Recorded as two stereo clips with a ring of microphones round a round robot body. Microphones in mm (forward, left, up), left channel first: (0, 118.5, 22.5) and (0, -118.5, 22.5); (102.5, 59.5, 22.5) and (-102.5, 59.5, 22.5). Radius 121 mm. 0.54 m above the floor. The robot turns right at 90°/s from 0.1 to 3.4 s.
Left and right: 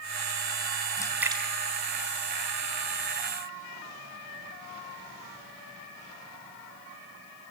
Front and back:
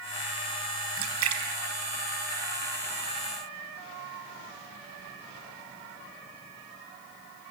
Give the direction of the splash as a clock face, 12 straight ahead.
7 o'clock.